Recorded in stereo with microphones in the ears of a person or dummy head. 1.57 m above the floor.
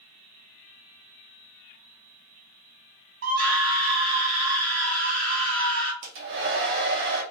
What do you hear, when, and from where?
3.2 s a scream: 55° right (ahead or behind), 1.3 m
6.0 s a hair dryer: 60° right (ahead or behind), 0.7 m